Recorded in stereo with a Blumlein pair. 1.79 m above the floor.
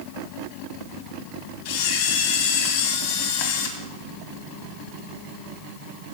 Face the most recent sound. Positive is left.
turn(degrees=50)